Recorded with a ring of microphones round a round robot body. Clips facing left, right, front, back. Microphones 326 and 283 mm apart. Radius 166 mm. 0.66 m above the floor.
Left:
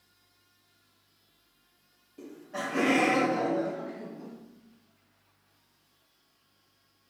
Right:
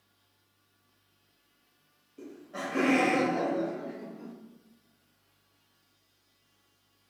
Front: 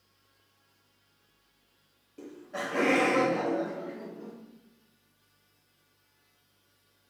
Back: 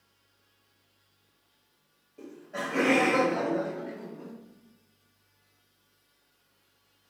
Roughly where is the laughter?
Ahead.